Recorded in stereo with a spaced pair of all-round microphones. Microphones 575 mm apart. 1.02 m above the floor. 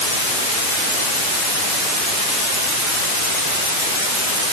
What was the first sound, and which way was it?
Only background noise.